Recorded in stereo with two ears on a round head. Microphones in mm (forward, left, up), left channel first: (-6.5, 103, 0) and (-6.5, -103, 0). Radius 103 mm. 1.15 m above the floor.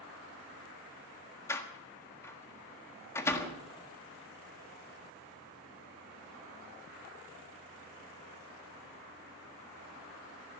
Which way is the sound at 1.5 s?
10° left (ahead or behind).